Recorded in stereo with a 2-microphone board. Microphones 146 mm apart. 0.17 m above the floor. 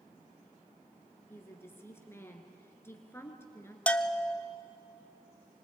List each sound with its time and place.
1.3 s a woman speaking: 15° left (ahead or behind), 2.5 m
3.9 s a bell: 10° left (ahead or behind), 0.6 m